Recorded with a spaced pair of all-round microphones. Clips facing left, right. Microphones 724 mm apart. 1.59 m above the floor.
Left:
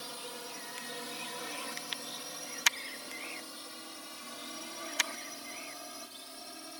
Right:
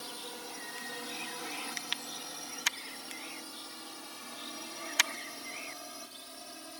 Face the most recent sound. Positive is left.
turn(degrees=0)  # may be behind; listen again after turning